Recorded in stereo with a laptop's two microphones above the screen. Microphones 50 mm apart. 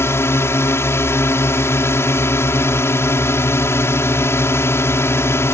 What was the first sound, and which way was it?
A drone, 60° left (ahead or behind).